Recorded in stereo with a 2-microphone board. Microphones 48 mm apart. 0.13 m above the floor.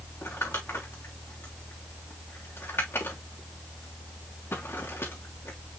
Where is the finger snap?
I don't hear a finger snap.